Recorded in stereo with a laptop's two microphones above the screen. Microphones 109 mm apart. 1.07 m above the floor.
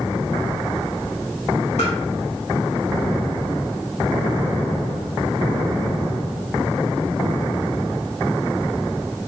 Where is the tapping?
75° left (ahead or behind), 1.9 m.